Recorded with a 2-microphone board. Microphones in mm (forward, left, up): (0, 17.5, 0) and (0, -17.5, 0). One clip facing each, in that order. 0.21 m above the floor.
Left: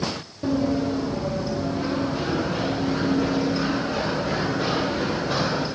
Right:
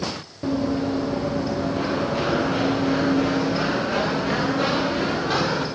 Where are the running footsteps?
20° right (ahead or behind), 2 m; by 5.7 s 70° right (ahead or behind), 5.5 m.